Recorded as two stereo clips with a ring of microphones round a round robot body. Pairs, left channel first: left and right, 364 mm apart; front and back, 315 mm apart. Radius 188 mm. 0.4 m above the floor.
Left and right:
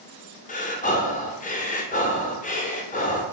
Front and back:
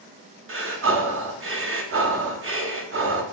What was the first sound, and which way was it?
Breathing, 150° left.